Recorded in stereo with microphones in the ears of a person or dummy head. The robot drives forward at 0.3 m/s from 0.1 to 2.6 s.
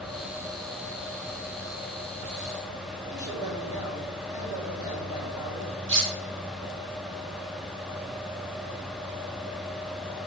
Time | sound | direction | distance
3.1 | a man speaking | 15° right (ahead or behind) | 5.5 m
5.9 | cutlery clinking | 60° right (ahead or behind) | 3 m